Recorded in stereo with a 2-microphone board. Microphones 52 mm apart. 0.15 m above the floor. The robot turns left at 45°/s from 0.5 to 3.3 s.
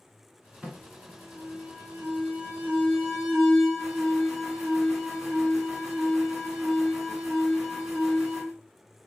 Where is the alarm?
45° right, 1.5 m; by 8.5 s 165° right, 1.5 m.